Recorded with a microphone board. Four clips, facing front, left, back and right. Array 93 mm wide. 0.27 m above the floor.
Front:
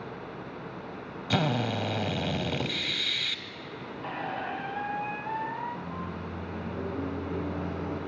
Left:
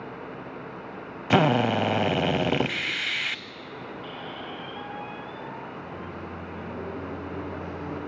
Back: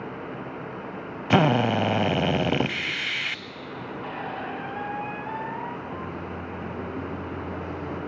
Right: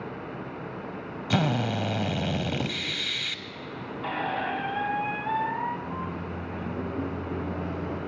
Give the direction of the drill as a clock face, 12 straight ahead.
7 o'clock.